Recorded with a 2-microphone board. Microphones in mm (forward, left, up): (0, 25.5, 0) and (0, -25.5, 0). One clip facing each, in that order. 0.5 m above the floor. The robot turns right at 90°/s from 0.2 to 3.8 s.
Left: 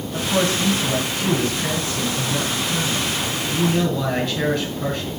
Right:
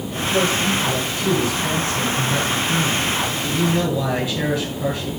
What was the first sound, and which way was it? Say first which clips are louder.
A man speaking: right 1 dB; 35° left.